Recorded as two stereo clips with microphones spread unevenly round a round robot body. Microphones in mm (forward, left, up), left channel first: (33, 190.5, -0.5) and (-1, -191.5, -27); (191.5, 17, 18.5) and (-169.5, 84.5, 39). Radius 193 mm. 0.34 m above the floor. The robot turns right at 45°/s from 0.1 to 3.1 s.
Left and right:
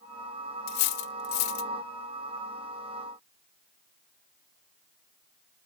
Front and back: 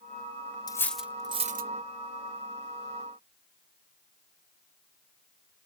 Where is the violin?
No violin in this recording.